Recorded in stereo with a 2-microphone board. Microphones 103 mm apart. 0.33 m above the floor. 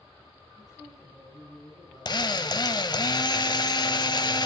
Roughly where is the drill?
Left.